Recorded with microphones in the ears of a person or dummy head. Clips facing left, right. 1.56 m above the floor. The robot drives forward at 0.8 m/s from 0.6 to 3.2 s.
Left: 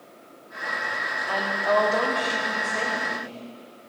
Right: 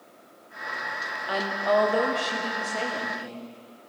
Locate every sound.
1.3 s a woman speaking: 10° right (ahead or behind), 0.7 m; by 3.5 s 5° right (ahead or behind), 2 m